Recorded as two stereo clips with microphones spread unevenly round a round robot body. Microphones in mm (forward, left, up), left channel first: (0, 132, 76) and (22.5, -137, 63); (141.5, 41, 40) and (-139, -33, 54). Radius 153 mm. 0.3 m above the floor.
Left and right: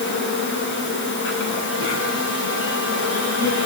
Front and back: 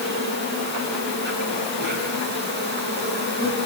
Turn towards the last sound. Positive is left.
turn(degrees=140)